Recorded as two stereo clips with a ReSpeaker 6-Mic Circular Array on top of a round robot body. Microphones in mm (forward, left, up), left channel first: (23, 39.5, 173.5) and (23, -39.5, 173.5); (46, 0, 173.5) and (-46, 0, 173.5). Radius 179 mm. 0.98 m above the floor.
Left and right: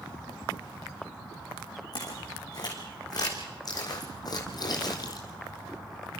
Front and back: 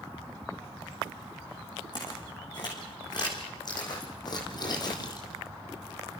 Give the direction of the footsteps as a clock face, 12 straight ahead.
10 o'clock.